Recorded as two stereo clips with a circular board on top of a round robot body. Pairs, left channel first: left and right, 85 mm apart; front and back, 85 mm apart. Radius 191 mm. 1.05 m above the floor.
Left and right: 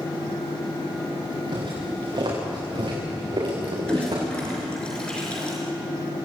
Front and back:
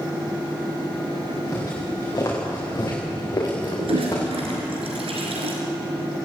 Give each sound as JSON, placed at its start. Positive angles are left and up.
{"t": 1.5, "sound": "footsteps", "azimuth_deg": -60, "distance_m": 9.0}
{"t": 3.8, "sound": "a toilet flushing", "azimuth_deg": 170, "distance_m": 4.5}